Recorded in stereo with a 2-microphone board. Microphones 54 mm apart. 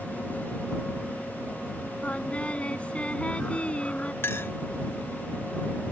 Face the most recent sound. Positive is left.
turn(degrees=45)  # may be behind; listen again after turning